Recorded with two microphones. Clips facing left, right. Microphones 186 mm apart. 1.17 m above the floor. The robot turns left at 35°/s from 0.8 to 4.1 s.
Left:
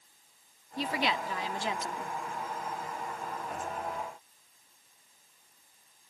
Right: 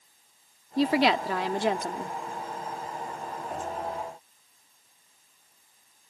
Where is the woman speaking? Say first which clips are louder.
Right 9 dB; 90° right; by 2.2 s 135° right.